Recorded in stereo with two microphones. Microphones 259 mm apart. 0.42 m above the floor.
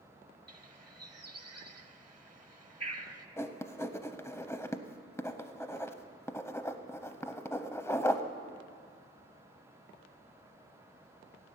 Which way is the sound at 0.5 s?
80° right.